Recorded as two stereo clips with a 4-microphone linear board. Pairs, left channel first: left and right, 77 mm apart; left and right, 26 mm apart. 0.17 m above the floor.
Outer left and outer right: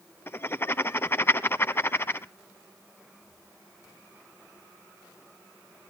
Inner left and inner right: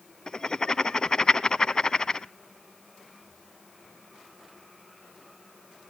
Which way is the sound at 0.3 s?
30° left (ahead or behind).